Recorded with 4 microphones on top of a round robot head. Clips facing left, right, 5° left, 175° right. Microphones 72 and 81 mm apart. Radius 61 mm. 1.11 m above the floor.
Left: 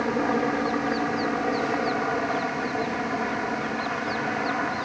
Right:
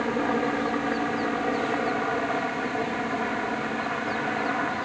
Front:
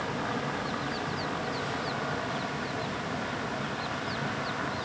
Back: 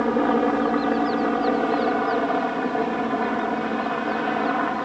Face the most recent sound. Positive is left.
turn(degrees=180)